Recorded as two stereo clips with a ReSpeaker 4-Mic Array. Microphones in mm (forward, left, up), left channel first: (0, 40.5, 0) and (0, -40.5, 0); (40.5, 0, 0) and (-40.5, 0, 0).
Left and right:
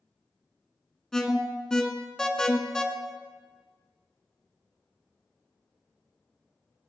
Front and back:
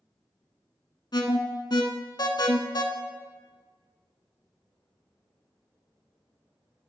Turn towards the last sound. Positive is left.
turn(degrees=10)